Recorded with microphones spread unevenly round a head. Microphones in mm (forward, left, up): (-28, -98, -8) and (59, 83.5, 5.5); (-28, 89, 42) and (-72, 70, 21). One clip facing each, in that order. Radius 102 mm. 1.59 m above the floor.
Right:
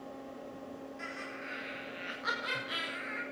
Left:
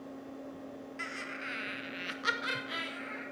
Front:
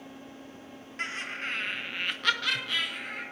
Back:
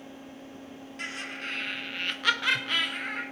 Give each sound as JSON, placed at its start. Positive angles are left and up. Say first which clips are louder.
{"t": 1.0, "sound": "laughter", "louder": "even, front 2 dB", "azimuth_deg": 60, "distance_m": 1.9}